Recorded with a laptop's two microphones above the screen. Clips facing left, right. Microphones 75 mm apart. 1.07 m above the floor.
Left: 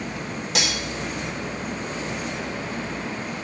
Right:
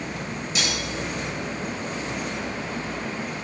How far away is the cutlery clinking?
About 1.9 m.